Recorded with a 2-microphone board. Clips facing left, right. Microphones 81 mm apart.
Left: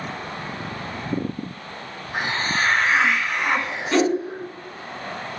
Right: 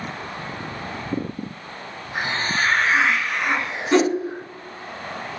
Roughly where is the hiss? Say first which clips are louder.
Even; left.